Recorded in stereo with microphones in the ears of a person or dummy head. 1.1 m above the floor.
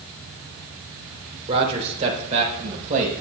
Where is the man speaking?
30° right (ahead or behind), 3 m; by 3.2 s 40° right (ahead or behind), 4.5 m.